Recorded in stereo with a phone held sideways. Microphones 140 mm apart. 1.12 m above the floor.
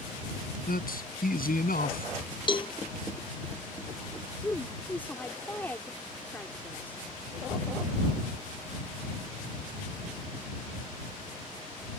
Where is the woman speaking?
15° left (ahead or behind).